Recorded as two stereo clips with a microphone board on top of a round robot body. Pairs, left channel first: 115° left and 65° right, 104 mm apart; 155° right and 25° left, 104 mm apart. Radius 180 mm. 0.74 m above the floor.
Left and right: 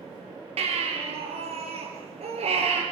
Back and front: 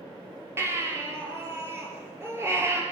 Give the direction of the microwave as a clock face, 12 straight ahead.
No microwave in this recording.